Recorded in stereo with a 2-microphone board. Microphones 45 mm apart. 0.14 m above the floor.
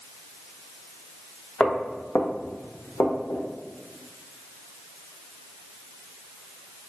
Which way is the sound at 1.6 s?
25° left (ahead or behind).